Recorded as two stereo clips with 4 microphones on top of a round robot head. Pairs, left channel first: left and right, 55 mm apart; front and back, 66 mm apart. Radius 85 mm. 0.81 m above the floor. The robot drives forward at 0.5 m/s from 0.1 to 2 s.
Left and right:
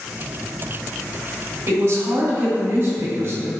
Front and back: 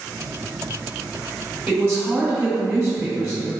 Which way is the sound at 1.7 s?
125° right.